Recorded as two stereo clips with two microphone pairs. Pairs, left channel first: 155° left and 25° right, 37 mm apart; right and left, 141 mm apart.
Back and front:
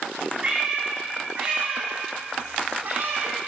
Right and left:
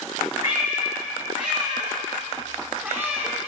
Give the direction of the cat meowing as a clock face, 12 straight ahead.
11 o'clock.